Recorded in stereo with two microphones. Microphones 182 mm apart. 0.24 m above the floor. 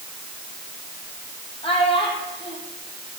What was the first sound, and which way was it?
A child speaking, 30° left (ahead or behind).